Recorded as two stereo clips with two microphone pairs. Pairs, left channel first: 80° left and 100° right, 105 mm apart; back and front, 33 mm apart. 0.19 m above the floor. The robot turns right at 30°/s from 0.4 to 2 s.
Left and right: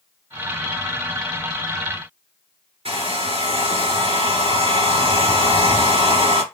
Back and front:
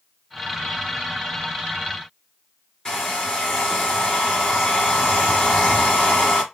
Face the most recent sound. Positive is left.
turn(degrees=-110)